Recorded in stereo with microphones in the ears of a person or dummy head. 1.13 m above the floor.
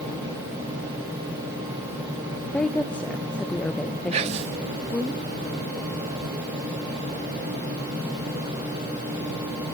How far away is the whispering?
About 0.8 m.